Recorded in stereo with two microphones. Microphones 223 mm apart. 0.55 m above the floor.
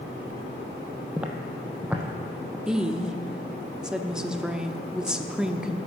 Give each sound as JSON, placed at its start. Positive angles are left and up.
{"t": 1.2, "sound": "footsteps", "side_deg": -5, "distance_m": 1.0}
{"t": 2.7, "sound": "a woman speaking", "side_deg": -5, "distance_m": 0.7}